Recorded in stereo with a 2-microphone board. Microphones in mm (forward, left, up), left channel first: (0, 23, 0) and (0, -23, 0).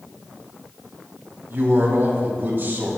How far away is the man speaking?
About 4 m.